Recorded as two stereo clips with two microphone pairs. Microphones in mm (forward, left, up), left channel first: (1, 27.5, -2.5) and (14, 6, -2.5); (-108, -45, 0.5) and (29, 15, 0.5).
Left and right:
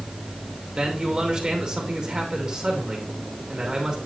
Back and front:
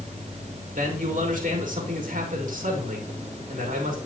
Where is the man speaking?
Straight ahead, 2.5 m.